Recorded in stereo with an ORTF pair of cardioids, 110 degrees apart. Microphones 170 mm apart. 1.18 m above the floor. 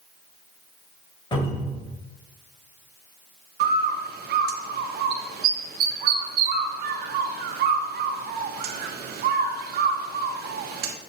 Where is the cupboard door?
30° left, 3 m.